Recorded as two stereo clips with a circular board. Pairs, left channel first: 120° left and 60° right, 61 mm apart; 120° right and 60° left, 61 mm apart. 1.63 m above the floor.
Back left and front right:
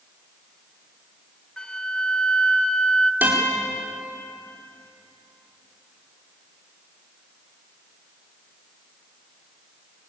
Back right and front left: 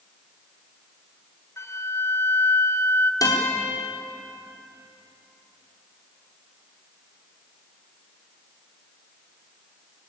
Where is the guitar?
120° right, 4.5 m.